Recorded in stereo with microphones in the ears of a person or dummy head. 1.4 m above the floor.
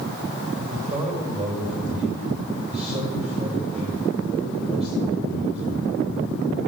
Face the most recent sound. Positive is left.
turn(degrees=-30)  # may be behind; listen again after turning